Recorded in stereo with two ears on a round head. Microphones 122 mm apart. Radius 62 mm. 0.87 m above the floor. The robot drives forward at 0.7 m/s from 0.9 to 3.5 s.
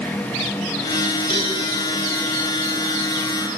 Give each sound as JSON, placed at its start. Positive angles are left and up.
{"t": 1.3, "sound": "a cowbell", "side_deg": 40, "distance_m": 9.0}